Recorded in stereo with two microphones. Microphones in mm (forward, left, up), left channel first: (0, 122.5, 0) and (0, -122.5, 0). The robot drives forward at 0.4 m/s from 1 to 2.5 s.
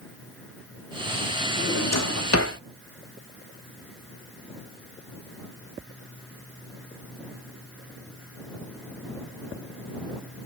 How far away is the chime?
I don't hear a chime.